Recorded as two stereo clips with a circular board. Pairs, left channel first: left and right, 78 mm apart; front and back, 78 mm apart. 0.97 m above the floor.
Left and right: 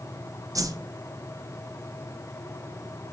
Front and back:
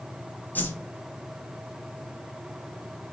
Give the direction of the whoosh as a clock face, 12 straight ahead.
2 o'clock.